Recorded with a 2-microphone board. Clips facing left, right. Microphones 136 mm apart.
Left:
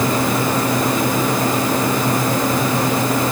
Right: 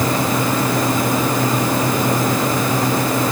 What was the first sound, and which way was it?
Only background noise.